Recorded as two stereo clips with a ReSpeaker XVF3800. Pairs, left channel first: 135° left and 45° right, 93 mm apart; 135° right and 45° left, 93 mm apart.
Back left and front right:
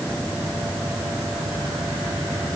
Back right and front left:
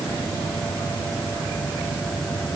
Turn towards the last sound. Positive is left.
No sound to turn to.